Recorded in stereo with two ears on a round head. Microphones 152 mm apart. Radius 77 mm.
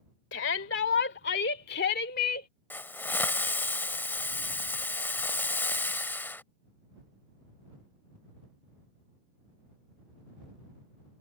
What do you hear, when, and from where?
0.3 s a shout: 70° left (ahead or behind); by 2.5 s 55° left (ahead or behind)
2.7 s a hiss: 10° left (ahead or behind)